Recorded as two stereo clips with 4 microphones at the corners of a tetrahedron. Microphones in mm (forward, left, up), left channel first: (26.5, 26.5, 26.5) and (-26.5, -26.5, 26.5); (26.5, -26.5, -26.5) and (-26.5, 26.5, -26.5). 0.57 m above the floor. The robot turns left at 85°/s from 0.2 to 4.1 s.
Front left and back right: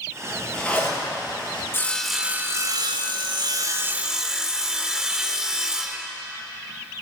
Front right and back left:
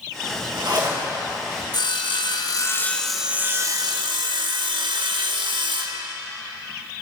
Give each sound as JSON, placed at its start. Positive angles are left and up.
{"t": 0.3, "sound": "a zipper", "azimuth_deg": 150, "distance_m": 3.0}
{"t": 1.7, "sound": "sawing", "azimuth_deg": -15, "distance_m": 0.6}